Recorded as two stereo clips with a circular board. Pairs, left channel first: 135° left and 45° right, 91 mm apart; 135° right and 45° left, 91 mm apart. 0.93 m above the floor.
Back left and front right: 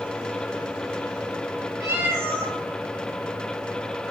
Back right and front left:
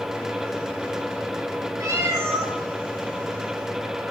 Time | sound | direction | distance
1.8 | a cat meowing | 5° left | 0.9 m